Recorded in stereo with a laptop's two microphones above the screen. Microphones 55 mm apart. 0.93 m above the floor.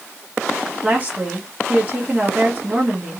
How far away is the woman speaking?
About 1.1 m.